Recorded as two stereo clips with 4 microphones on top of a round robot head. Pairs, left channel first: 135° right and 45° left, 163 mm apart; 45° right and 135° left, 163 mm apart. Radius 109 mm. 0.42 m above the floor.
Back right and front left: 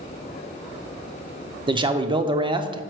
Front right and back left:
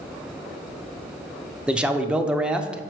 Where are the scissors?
I don't hear scissors.